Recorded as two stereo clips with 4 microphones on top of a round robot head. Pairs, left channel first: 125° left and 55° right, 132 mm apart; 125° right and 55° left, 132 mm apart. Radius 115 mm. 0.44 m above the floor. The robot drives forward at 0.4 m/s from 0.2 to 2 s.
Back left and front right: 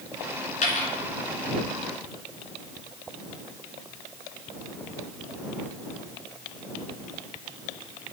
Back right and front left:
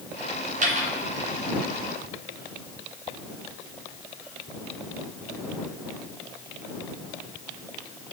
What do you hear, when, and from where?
0.6 s a dropped coin: 90° left, 1.2 m; by 0.9 s 95° left, 1.2 m